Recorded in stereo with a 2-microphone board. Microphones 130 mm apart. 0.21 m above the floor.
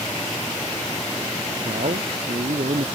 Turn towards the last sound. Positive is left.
turn(degrees=-75)  # may be behind; listen again after turning